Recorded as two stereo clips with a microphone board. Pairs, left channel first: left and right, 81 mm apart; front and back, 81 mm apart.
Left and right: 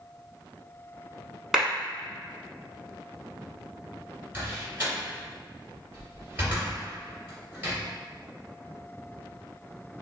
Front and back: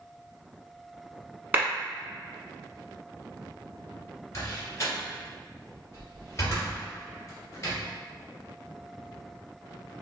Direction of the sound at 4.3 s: 40° right.